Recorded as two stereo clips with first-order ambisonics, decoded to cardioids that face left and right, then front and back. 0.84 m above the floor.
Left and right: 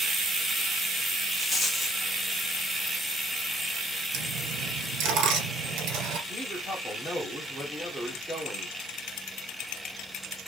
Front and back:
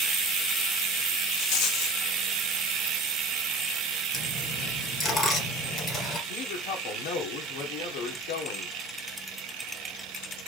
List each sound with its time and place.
1.4 s a rattle: 5° left, 1.2 m
4.1 s a dropped coin: 65° right, 4 m
6.3 s a woman speaking: 5° right, 2.5 m